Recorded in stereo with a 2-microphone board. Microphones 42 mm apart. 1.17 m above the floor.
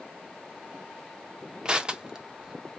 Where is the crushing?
20° right (ahead or behind), 0.6 m.